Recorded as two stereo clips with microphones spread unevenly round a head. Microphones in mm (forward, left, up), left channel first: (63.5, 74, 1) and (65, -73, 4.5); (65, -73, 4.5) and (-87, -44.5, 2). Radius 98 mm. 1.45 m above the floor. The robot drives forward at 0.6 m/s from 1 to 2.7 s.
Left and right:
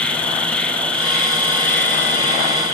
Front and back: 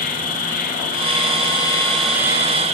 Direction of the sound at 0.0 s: 10° left.